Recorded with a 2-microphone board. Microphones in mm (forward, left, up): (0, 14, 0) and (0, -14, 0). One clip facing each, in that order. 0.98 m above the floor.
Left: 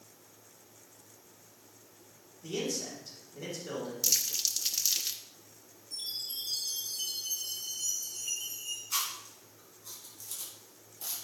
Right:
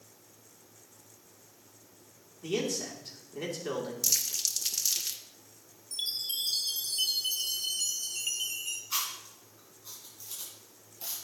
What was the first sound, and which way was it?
A man speaking, 75° right (ahead or behind).